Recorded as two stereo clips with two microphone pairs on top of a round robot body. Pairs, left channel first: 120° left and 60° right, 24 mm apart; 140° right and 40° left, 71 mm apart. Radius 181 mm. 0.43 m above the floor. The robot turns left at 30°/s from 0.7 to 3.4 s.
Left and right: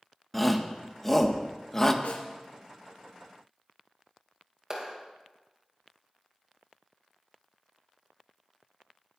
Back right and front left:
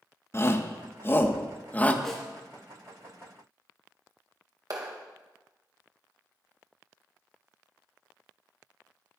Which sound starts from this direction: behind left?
A snare drum, at 2.0 s.